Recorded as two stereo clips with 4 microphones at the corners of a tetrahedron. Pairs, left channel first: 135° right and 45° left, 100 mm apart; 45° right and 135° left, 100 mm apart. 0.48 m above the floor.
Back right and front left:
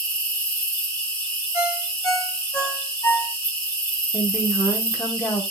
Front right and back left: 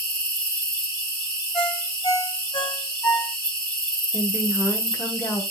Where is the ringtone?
70° right, 1.4 m.